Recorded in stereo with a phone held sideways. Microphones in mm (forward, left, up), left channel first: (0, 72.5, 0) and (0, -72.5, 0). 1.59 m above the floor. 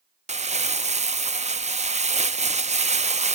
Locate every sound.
0.3 s crumpling: 50° right (ahead or behind), 0.5 m